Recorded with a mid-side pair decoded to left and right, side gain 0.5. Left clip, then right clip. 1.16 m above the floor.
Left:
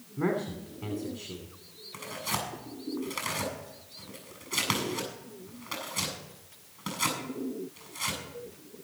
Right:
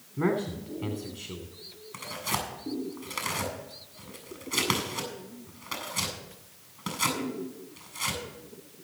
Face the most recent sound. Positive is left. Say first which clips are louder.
# right 1 dB
turn(degrees=5)